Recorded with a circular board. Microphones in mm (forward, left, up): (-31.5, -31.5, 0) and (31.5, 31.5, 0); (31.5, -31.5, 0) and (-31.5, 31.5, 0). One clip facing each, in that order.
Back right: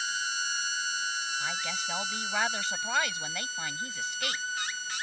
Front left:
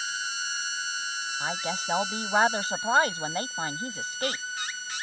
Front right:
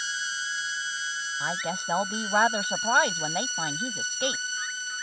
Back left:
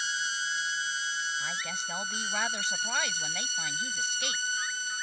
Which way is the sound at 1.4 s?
5° right.